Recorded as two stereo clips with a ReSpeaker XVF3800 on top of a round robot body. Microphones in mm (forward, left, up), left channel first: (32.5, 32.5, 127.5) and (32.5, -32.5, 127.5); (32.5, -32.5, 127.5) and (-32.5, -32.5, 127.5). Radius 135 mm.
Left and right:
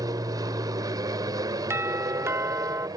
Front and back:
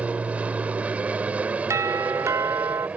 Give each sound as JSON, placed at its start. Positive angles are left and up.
{"t": 0.0, "sound": "an aircraft", "azimuth_deg": -110}
{"t": 1.7, "sound": "a doorbell", "azimuth_deg": -140}